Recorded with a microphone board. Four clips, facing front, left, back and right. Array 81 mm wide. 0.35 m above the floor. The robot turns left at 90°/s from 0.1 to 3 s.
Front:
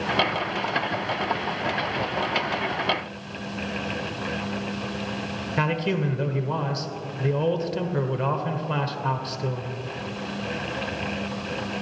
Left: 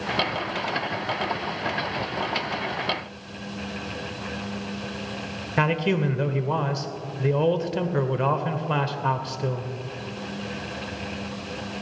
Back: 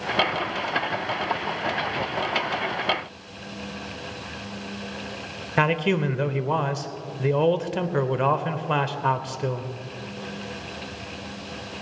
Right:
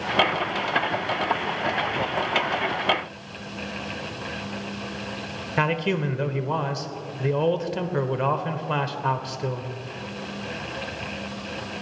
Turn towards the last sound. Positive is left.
turn(degrees=180)